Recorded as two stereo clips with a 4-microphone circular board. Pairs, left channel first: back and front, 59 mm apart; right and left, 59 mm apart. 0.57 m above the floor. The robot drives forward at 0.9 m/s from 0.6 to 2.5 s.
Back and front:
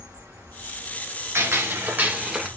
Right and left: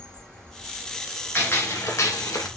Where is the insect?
15° right, 3.5 m; by 2.6 s 30° right, 2 m.